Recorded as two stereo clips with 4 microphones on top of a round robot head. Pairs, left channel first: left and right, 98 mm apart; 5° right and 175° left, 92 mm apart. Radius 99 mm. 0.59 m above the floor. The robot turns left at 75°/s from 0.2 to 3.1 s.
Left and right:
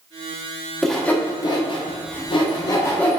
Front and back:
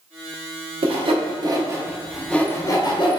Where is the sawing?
175° right, 1.0 m; by 3.2 s 10° left, 1.0 m.